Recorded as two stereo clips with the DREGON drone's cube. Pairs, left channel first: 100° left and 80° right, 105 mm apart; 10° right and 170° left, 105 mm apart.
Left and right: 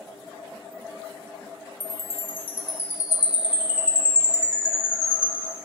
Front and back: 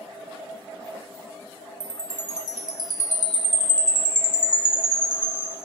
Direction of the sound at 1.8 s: 150° right.